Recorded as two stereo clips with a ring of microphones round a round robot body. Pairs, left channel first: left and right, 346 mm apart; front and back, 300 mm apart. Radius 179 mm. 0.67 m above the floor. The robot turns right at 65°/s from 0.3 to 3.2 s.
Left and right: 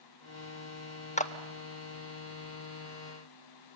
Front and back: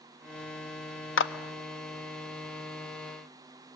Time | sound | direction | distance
1.2 | a clap | 25° left | 1.0 m